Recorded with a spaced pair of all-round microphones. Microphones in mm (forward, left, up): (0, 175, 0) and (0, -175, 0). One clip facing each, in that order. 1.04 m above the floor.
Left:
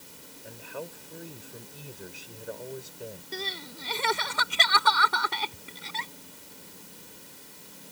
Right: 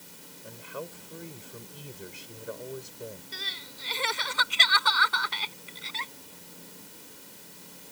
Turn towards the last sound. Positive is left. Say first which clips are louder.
# left 9 dB
turn(degrees=60)  # may be behind; listen again after turning